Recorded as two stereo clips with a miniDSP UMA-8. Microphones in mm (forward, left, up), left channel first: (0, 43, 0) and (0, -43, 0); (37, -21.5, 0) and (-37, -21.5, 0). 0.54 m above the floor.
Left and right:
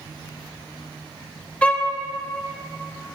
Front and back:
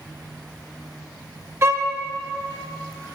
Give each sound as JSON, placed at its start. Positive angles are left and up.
{"t": 1.6, "sound": "a violin", "azimuth_deg": 155, "distance_m": 0.6}